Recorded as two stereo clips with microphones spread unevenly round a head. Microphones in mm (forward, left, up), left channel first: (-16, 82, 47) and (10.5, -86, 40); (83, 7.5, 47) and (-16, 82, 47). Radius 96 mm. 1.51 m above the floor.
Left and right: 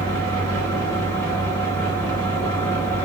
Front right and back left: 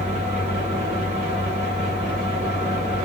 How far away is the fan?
About 1.0 m.